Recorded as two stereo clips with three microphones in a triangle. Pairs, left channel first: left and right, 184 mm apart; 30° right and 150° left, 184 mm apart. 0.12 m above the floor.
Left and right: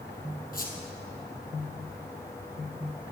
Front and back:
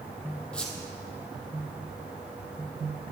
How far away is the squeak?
About 2 m.